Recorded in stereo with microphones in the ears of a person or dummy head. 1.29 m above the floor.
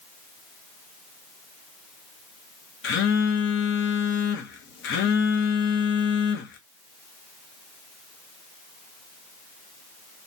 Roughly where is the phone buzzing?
Left.